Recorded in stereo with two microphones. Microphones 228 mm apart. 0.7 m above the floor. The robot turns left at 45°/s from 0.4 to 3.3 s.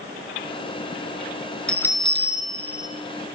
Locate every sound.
1.7 s a bell: 175° left, 3.5 m; by 2.9 s 120° left, 3.5 m